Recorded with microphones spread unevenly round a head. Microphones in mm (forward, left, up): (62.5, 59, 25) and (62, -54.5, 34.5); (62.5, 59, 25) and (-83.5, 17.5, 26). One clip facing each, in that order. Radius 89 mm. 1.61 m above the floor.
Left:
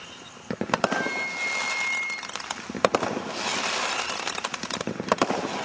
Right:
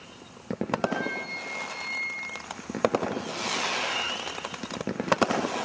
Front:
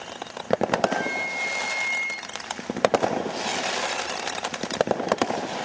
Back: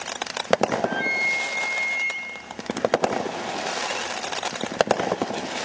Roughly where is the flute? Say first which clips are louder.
Left 4 dB, front 1 dB; behind.